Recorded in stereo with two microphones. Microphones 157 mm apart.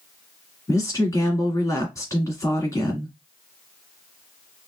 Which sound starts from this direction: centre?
A woman speaking, at 0.7 s.